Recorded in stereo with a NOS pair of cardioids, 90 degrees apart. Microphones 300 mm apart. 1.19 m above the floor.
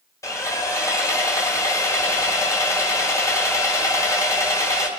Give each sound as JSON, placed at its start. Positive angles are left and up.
{"t": 0.2, "sound": "sawing", "azimuth_deg": 10, "distance_m": 2.0}